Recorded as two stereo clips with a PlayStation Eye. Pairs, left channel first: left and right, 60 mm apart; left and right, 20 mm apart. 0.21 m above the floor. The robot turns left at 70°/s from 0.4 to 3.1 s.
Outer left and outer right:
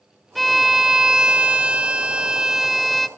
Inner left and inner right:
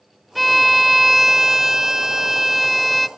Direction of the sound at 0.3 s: Centre (ahead or behind).